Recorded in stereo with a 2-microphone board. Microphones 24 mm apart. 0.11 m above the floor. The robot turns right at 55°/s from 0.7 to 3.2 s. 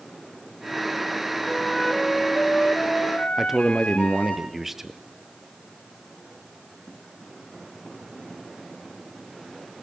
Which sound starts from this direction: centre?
A man speaking, at 3.4 s.